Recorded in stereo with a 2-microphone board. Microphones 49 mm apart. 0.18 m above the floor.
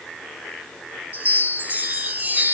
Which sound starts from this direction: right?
A chime, at 1.1 s.